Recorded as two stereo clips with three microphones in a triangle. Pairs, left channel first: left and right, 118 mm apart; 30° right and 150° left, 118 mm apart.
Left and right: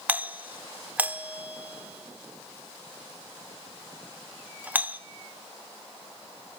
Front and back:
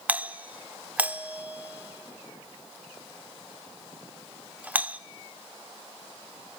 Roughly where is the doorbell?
Behind right.